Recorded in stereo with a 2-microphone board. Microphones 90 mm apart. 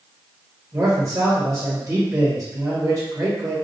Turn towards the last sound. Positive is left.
turn(degrees=-35)  # may be behind; listen again after turning